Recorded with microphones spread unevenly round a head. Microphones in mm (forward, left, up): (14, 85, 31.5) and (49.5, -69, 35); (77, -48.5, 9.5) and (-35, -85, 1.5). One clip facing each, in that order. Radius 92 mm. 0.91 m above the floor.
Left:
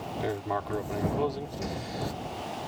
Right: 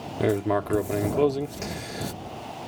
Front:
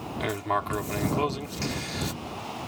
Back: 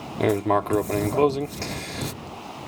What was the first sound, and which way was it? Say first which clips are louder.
Writing: right 9 dB, back 8 dB; 120° right.